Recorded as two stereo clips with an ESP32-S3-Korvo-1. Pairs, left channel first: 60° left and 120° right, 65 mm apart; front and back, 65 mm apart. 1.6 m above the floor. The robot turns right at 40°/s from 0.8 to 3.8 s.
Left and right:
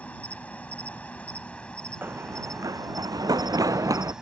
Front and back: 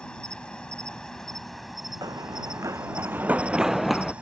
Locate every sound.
0.0 s an insect: 60° left; by 4.2 s straight behind
2.0 s running footsteps: 175° right; by 4.1 s 90° right